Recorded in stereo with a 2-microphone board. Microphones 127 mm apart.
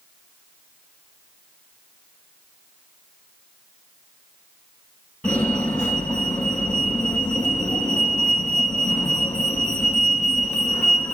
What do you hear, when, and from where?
5.2 s a fire alarm: 10° left (ahead or behind), 9.5 m